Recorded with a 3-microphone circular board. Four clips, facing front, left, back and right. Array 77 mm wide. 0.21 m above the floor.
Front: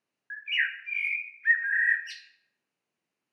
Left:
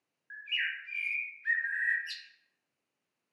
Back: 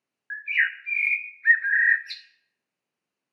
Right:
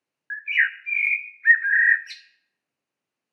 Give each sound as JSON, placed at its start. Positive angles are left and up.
{"t": 0.3, "sound": "a bird", "azimuth_deg": -120, "distance_m": 0.5}